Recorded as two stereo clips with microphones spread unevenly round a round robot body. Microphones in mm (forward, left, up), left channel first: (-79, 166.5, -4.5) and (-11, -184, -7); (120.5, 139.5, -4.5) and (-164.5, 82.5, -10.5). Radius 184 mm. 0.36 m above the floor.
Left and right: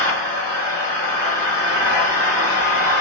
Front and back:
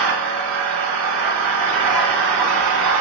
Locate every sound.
0.0 s an engine running: straight behind, 1.6 m